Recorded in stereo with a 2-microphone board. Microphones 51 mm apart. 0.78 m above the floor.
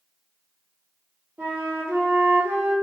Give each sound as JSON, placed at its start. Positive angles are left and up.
{"t": 1.4, "sound": "a flute", "side_deg": -55, "distance_m": 1.1}